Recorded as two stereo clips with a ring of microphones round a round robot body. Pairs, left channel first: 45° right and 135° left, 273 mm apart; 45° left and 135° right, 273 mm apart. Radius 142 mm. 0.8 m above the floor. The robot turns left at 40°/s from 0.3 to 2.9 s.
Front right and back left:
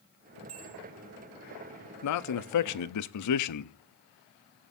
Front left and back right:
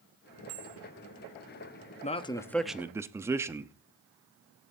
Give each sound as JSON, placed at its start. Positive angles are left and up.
{"t": 0.5, "sound": "a bell", "azimuth_deg": 170, "distance_m": 4.5}
{"t": 2.0, "sound": "a man speaking", "azimuth_deg": -20, "distance_m": 0.9}